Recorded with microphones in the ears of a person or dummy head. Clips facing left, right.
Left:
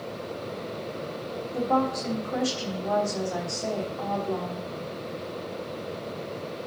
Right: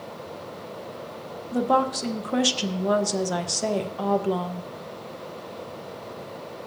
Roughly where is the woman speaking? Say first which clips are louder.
Right 3 dB; right.